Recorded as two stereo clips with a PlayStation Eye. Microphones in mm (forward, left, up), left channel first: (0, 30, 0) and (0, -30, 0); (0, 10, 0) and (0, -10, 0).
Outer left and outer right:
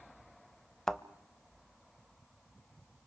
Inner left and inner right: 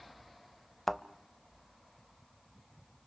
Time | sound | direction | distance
0.9 | a thud | 5° left (ahead or behind) | 0.6 m